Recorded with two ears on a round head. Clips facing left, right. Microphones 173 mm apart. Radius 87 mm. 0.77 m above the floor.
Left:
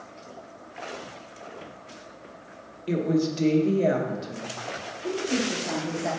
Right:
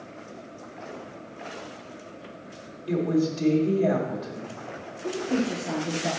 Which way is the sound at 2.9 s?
25° left (ahead or behind).